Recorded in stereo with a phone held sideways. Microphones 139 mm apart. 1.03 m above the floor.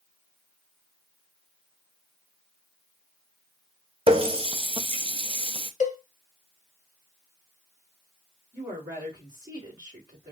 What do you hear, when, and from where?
4.1 s a running tap: 40° right (ahead or behind), 0.6 m
5.8 s a cowbell: 60° left (ahead or behind), 1.1 m
8.5 s a woman speaking: 25° right (ahead or behind), 3 m